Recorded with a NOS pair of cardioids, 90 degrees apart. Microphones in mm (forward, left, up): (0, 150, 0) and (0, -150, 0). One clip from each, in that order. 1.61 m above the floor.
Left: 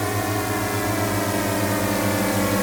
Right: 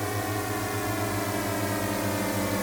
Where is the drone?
40° left.